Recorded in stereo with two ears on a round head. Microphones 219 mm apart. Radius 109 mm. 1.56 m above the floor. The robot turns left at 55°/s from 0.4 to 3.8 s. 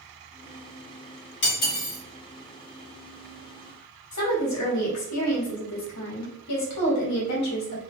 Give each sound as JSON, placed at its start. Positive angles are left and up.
{"t": 1.4, "sound": "cutlery clinking", "side_deg": 50, "distance_m": 1.5}
{"t": 4.1, "sound": "a woman speaking", "side_deg": 70, "distance_m": 1.3}